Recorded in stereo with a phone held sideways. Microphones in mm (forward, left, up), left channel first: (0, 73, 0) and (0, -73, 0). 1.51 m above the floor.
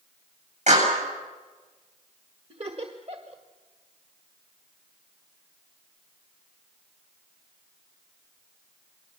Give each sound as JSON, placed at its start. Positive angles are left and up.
{"t": 0.7, "sound": "a clap", "side_deg": -55, "distance_m": 8.5}
{"t": 2.5, "sound": "laughter", "side_deg": -45, "distance_m": 1.8}